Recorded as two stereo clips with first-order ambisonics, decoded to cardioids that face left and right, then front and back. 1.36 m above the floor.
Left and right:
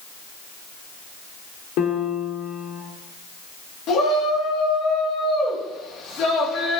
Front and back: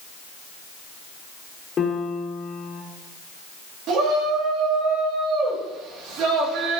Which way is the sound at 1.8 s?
65° left.